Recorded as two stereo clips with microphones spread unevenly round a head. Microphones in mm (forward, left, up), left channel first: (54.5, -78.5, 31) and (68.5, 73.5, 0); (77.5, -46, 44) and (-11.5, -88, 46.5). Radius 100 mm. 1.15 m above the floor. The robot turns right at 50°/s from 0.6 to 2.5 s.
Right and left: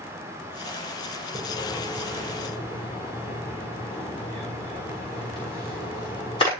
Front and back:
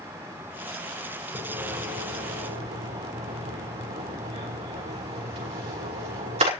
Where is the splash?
140° left, 6 m; by 6.5 s 160° right, 6 m.